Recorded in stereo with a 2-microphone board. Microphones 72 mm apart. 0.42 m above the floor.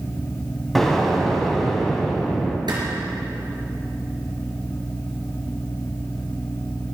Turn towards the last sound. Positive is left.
turn(degrees=-85)